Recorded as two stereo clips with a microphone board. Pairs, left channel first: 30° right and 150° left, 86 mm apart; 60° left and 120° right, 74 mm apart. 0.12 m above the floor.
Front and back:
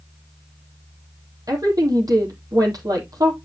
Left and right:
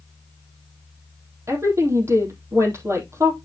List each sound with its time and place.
1.5 s a woman speaking: 170° right, 3.5 m